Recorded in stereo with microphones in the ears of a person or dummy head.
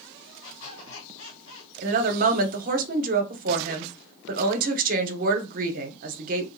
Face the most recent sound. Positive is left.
turn(degrees=-45)  # may be behind; listen again after turning